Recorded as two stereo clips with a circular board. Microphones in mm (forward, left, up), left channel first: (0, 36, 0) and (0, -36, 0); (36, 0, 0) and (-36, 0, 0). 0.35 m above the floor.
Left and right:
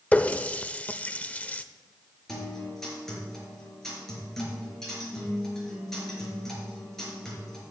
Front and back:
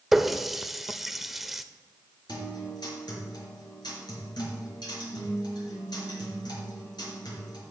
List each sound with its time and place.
0.1 s a running tap: 100° left, 0.5 m
2.3 s a guitar: 5° left, 5.5 m